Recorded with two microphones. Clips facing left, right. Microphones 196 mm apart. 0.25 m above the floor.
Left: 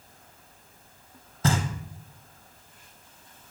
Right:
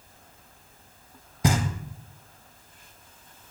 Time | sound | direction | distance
1.4 | knocking | 15° right (ahead or behind) | 1.1 m